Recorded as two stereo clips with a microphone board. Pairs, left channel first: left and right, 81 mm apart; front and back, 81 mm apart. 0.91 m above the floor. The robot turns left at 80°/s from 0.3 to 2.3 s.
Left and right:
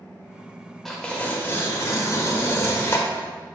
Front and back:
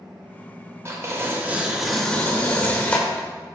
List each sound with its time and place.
0.8 s tearing paper: 175° left, 0.7 m; by 3.3 s 60° left, 0.7 m